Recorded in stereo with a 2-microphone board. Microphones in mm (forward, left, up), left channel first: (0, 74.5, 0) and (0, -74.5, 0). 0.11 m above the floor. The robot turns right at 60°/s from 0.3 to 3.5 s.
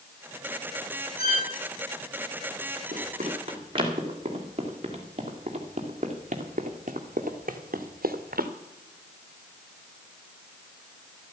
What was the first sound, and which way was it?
A violin, 60° right (ahead or behind).